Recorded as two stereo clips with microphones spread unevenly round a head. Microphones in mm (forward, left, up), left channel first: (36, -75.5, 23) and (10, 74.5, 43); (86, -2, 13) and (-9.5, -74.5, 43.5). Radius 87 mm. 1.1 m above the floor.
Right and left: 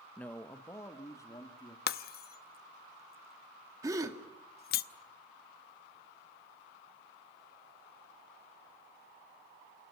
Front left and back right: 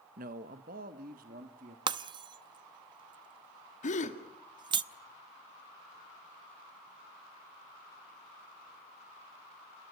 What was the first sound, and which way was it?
A man speaking, 160° right.